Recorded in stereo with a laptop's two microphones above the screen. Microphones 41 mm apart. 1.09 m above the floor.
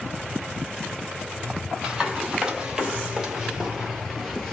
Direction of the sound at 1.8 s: 15° right (ahead or behind).